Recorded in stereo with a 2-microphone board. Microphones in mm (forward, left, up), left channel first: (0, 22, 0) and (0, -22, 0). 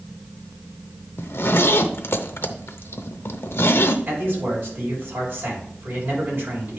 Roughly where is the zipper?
Left.